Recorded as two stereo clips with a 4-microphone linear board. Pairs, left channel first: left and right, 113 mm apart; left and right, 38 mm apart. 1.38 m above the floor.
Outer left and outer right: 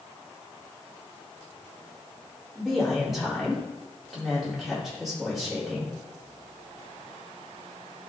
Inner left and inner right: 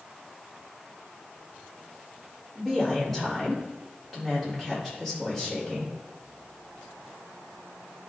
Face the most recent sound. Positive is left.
turn(degrees=0)  # may be behind; listen again after turning